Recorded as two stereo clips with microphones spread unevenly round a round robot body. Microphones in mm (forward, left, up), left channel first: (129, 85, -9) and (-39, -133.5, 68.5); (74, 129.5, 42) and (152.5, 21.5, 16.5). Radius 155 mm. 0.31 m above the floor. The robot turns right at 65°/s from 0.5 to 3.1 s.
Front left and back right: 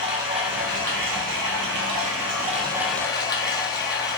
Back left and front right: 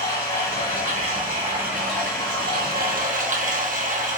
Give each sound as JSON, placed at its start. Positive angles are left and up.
{"t": 0.0, "sound": "running water", "azimuth_deg": 165, "distance_m": 1.2}